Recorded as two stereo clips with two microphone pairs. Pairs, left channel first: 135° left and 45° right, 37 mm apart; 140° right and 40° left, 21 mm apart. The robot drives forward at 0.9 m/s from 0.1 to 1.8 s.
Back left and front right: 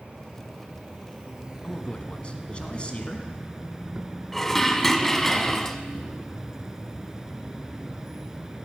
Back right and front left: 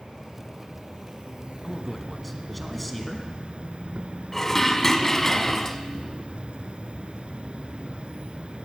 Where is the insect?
5° left, 2 m; by 8.6 s 25° left, 0.5 m.